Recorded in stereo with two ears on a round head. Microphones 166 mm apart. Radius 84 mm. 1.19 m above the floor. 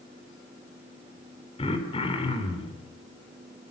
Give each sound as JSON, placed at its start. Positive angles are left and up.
{"t": 1.6, "sound": "throat clearing", "side_deg": 30, "distance_m": 4.0}